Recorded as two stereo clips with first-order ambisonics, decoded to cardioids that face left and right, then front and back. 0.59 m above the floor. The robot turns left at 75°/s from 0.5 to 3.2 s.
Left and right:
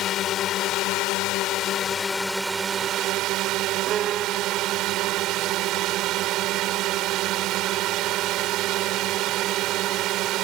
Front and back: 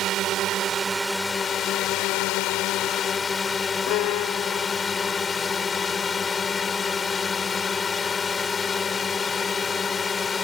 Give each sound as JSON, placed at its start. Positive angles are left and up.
{"t": 0.0, "sound": "a drone", "azimuth_deg": 135}
{"t": 3.9, "sound": "a violin", "azimuth_deg": -30}